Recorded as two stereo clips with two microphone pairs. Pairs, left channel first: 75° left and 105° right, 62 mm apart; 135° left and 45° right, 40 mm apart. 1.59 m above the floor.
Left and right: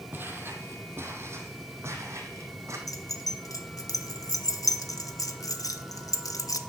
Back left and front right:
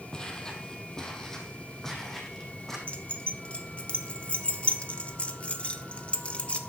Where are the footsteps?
155° right, 2.5 m; by 2.8 s 140° right, 4 m.